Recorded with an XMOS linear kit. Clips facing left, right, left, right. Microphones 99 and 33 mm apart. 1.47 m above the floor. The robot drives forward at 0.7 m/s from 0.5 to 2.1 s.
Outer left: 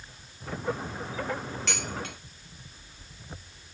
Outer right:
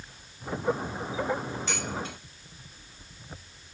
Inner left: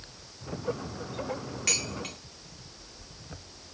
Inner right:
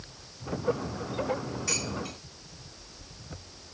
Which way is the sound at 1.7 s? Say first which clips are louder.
Outer right 1 dB, inner left 4 dB; 75° left (ahead or behind).